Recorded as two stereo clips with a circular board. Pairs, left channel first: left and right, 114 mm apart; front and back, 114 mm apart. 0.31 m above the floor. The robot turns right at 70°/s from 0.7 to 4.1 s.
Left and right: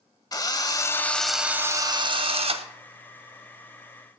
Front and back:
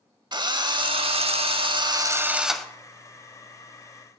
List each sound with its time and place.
0.3 s a drill: 140° left, 0.6 m; by 2.7 s 85° right, 0.6 m